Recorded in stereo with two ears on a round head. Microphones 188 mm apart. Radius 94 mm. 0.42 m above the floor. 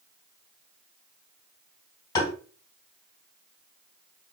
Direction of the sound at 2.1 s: 20° left (ahead or behind).